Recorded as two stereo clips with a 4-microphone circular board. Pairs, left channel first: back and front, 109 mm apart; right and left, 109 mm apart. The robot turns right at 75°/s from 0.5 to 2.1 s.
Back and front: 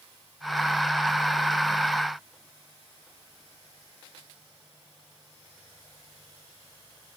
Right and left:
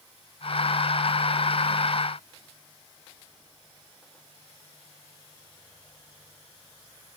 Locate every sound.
Only background noise.